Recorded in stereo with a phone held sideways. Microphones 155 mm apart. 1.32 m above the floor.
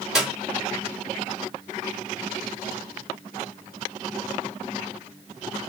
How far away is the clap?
About 3 m.